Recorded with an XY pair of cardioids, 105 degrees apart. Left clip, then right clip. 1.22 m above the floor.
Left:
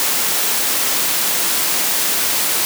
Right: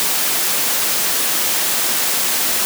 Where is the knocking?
I don't hear knocking.